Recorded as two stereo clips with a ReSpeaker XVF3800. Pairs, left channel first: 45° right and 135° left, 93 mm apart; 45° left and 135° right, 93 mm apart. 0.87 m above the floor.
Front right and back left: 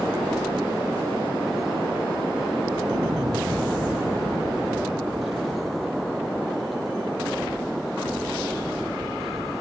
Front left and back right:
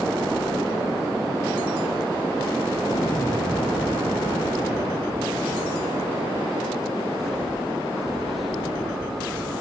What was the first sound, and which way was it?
An explosion, 90° left.